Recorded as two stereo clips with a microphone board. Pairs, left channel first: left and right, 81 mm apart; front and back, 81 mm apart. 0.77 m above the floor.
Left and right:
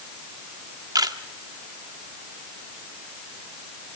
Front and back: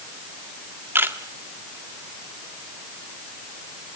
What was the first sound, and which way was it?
A camera shutter, 120° right.